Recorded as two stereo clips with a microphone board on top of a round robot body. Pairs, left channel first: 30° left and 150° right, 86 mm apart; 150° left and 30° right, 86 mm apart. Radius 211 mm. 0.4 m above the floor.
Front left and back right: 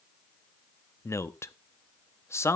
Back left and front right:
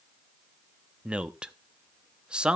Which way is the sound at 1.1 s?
40° left.